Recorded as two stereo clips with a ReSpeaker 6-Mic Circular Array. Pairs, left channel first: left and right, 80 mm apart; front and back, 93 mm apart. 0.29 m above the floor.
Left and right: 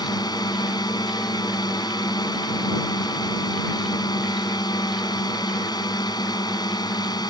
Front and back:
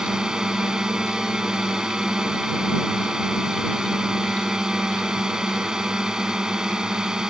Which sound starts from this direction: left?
A drone, at 0.0 s.